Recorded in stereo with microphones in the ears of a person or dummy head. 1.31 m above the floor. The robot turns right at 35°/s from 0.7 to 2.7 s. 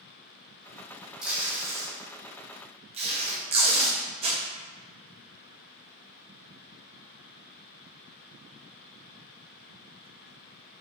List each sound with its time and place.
1.2 s tape being pulled: 5° right (ahead or behind), 0.6 m; by 4.4 s 35° right (ahead or behind), 0.6 m